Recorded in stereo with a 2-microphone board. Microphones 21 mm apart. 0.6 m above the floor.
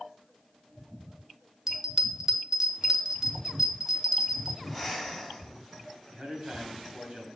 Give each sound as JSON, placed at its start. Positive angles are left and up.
{"t": 1.7, "sound": "a bell", "side_deg": -15, "distance_m": 0.8}
{"t": 4.6, "sound": "breathing", "side_deg": -15, "distance_m": 2.5}
{"t": 6.1, "sound": "a man speaking", "side_deg": -60, "distance_m": 3.5}